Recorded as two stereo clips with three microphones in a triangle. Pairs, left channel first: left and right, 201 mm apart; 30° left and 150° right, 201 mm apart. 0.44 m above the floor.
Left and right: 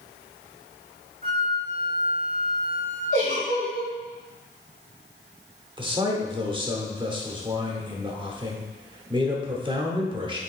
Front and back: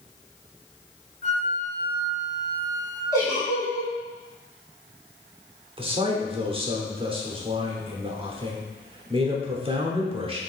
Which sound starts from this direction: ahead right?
A flute, at 1.2 s.